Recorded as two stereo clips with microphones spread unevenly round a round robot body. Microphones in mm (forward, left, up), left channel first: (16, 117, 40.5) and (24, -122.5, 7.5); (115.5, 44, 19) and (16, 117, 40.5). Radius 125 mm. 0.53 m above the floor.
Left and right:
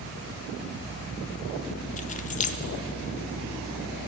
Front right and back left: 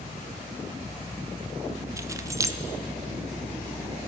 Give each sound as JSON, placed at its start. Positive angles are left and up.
{"t": 2.0, "sound": "keys jangling", "azimuth_deg": 95, "distance_m": 0.6}